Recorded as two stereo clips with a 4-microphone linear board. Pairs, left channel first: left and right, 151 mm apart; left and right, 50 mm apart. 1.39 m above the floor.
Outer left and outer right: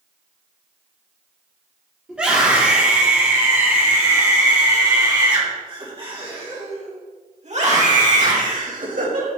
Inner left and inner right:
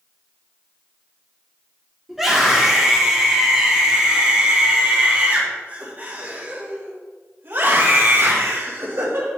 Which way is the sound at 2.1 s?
5° right (ahead or behind).